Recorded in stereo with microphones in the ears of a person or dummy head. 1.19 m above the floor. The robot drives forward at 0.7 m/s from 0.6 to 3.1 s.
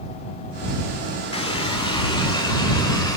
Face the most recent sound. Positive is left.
turn(degrees=20)  # may be behind; listen again after turning